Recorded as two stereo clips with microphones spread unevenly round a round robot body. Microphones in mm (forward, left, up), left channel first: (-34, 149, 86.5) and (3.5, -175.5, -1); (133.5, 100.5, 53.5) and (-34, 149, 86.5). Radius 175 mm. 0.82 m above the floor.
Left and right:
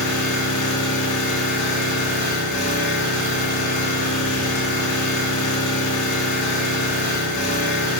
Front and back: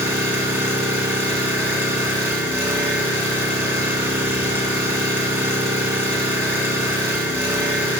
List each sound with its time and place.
0.0 s an engine running: 85° left, 1.6 m